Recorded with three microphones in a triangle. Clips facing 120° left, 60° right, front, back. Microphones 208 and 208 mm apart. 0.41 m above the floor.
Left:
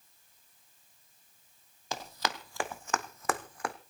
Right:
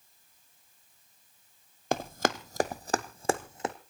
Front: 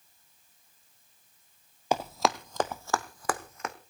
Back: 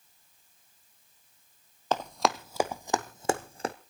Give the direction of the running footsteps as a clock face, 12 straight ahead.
3 o'clock.